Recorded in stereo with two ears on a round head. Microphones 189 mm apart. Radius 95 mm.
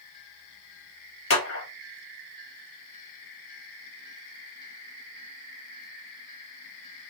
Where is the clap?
70° left (ahead or behind), 2 m.